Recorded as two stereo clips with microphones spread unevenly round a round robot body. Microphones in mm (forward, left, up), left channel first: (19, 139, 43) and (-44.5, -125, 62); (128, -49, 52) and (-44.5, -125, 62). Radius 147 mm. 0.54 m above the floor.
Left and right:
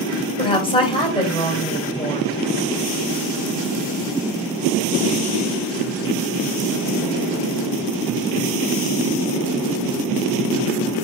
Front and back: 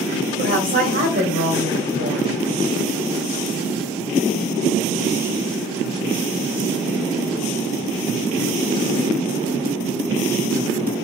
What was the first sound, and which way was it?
A woman speaking, 145° left.